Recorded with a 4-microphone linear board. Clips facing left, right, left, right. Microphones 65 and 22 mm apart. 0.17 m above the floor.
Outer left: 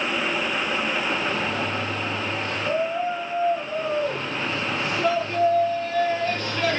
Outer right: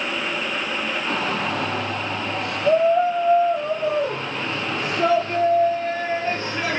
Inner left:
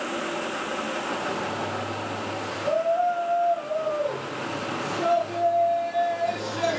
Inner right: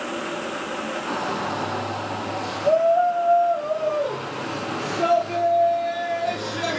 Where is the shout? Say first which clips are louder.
Outer right 1 dB, inner right 2 dB; 75° right (ahead or behind), 7 m; by 6.8 s 15° right (ahead or behind), 2.5 m.